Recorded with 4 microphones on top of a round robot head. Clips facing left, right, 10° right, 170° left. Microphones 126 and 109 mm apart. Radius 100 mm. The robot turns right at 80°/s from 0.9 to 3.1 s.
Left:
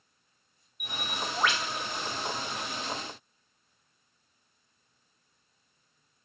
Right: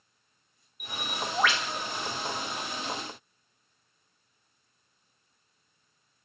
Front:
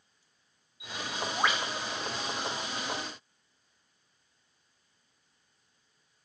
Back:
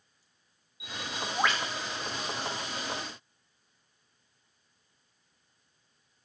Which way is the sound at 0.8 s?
140° right.